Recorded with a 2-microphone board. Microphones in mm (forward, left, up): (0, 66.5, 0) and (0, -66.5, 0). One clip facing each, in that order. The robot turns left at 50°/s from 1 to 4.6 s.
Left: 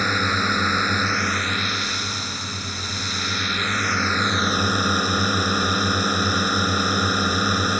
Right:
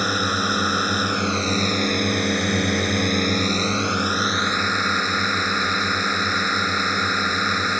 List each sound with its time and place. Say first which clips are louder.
0.0 s a drone: right 1 dB; 10° right; by 7.8 s 170° left